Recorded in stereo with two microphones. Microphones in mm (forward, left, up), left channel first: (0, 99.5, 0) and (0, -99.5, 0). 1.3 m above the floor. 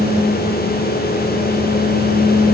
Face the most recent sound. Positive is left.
No sound to turn to.